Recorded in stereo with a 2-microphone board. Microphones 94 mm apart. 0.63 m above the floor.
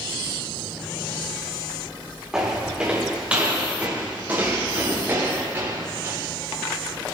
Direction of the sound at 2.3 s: 10° right (ahead or behind).